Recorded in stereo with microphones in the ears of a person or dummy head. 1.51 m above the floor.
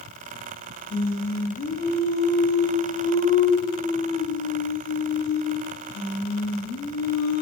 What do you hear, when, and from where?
0.9 s singing: 45° left (ahead or behind), 1.4 m